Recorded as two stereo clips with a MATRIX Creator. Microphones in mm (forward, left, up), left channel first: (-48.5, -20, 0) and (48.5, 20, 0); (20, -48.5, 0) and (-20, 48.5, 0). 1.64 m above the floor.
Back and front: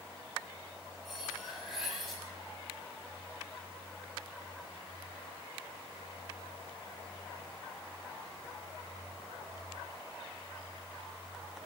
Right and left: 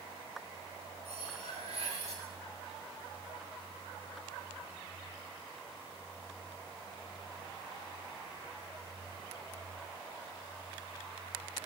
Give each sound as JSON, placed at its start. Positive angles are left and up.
{"t": 1.1, "sound": "cutlery clinking", "azimuth_deg": 110, "distance_m": 8.0}